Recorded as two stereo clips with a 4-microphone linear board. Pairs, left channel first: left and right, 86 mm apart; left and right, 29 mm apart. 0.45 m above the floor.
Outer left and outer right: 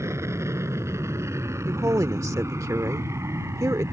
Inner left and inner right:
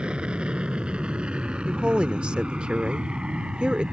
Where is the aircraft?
35° right (ahead or behind).